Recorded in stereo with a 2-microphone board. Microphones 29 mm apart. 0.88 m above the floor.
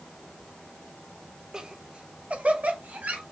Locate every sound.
1.5 s laughter: 25° right (ahead or behind), 0.7 m; by 3.2 s 60° right (ahead or behind), 1.1 m